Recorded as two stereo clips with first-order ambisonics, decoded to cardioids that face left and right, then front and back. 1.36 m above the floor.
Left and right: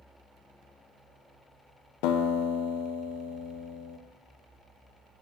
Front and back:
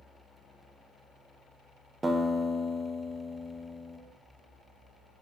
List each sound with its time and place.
2.0 s a guitar: 100° left, 0.6 m